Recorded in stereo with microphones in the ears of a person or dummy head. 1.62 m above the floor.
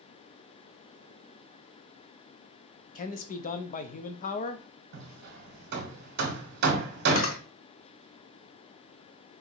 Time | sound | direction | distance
3.0 | a man speaking | 40° left (ahead or behind) | 0.5 m
4.9 | hammering | 60° right (ahead or behind) | 0.9 m
7.2 | a camera shutter | 35° left (ahead or behind) | 0.6 m